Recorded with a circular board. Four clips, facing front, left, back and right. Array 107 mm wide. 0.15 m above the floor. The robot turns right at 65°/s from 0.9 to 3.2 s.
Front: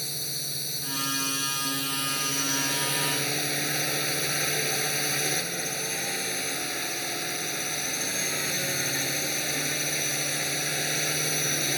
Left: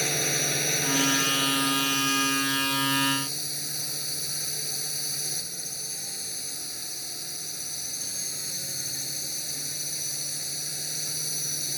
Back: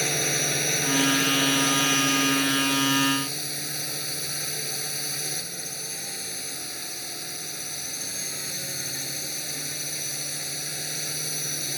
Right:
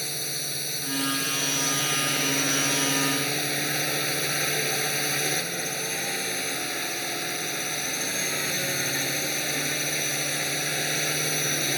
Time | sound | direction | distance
0.0 | a drone | 150° left | ?